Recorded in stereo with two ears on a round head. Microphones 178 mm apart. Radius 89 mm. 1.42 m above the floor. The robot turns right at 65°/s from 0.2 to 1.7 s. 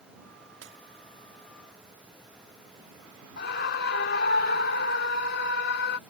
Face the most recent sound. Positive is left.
turn(degrees=55)  # may be behind; listen again after turning